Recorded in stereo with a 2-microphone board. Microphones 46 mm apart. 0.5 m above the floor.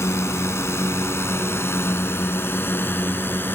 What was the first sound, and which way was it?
A drone, 75° left (ahead or behind).